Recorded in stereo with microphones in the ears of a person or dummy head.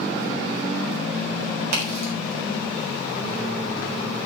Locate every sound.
1.7 s a crack: 70° right (ahead or behind), 4 m